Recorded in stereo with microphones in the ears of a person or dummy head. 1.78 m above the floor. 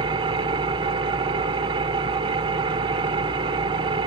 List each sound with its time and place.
0.0 s an engine running: 30° right (ahead or behind), 0.9 m